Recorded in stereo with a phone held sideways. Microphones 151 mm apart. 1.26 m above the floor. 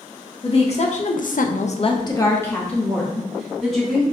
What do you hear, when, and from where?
0.4 s a woman speaking: 40° left (ahead or behind), 1.0 m; by 4.0 s centre (ahead or behind), 2 m